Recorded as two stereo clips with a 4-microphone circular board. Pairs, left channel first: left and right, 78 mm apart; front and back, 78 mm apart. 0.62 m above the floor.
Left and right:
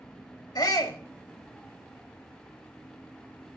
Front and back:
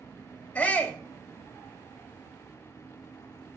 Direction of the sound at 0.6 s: 70° left.